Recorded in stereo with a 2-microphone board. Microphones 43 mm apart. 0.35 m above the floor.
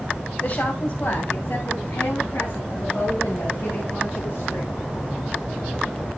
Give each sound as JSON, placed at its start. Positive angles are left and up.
{"t": 0.4, "sound": "a woman speaking", "side_deg": 45, "distance_m": 2.0}